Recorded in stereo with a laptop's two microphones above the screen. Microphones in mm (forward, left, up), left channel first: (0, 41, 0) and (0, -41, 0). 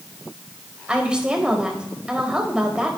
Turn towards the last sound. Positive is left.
turn(degrees=-15)  # may be behind; listen again after turning